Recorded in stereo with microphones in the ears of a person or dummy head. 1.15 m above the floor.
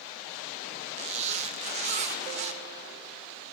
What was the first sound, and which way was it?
A zipper, 35° right (ahead or behind).